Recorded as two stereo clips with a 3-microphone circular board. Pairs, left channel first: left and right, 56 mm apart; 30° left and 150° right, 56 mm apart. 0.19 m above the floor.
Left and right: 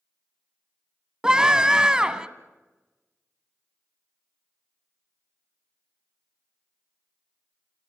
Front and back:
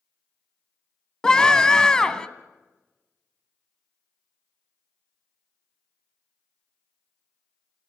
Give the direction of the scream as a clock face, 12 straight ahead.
1 o'clock.